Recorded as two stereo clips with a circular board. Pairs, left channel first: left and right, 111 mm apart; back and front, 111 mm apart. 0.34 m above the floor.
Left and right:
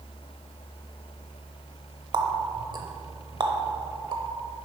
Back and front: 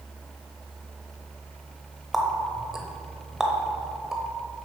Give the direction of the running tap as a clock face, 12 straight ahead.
3 o'clock.